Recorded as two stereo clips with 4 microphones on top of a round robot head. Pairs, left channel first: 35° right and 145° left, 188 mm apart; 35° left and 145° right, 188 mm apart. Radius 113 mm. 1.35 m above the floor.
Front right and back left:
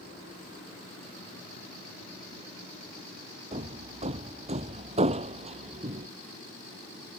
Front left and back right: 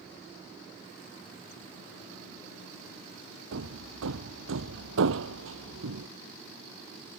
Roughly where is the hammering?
Behind.